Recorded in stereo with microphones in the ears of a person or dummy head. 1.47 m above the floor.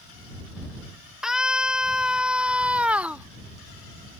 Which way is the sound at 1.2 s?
5° right (ahead or behind).